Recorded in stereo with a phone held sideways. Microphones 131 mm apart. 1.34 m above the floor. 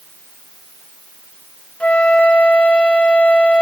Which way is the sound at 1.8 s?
10° left (ahead or behind).